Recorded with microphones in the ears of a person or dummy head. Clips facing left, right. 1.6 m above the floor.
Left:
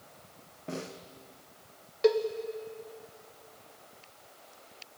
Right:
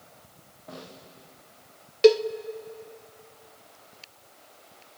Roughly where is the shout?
No shout in this recording.